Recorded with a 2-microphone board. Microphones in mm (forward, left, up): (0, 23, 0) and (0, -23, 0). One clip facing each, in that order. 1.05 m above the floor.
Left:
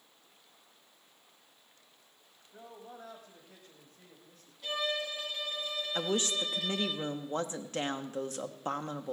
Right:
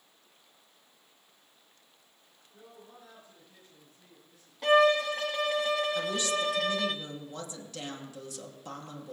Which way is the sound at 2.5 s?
65° left (ahead or behind).